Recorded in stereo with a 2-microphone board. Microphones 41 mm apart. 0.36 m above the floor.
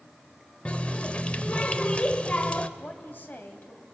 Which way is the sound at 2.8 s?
50° left (ahead or behind).